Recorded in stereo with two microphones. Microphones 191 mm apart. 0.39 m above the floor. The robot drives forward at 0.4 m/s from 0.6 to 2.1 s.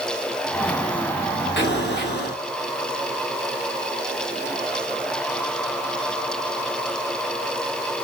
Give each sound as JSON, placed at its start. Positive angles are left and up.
{"t": 1.6, "sound": "an explosion", "side_deg": 65, "distance_m": 4.0}